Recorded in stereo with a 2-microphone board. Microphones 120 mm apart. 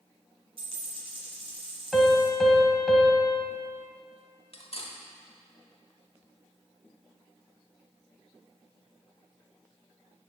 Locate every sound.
0.6 s a dropped coin: 50° right (ahead or behind), 2 m
1.9 s a piano: centre (ahead or behind), 1.3 m
4.5 s cutlery clinking: 55° left (ahead or behind), 1.0 m